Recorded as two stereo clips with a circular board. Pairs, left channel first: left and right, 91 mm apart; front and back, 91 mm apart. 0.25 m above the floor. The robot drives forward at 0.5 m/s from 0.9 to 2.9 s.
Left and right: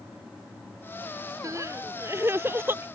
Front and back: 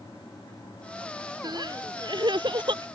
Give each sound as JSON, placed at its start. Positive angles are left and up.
{"t": 1.4, "sound": "crying", "azimuth_deg": -140}